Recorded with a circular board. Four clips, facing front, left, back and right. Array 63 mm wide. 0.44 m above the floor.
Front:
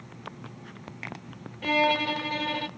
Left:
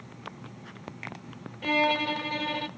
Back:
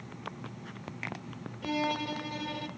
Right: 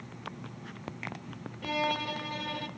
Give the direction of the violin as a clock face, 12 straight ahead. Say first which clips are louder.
Left 6 dB, front 8 dB; 11 o'clock.